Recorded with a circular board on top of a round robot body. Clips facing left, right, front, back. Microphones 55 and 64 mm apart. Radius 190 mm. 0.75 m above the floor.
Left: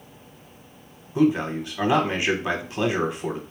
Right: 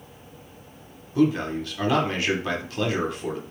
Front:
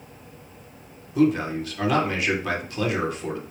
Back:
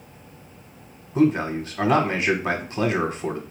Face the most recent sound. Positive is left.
turn(degrees=145)